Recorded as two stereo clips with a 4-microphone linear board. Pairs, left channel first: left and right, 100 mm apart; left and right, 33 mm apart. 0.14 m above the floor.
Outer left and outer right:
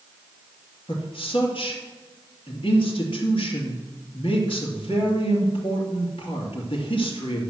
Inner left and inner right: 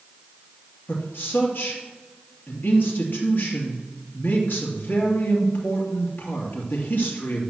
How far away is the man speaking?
About 3 m.